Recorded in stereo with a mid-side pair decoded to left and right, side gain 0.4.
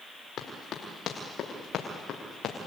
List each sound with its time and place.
0.4 s running footsteps: 65° left, 7.5 m; by 2.6 s 70° left, 6.5 m